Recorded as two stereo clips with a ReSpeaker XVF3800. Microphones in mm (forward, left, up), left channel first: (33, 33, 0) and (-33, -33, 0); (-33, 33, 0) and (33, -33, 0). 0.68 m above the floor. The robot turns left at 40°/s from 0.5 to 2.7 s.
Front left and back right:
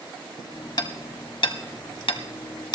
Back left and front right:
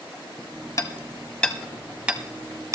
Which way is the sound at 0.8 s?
85° left.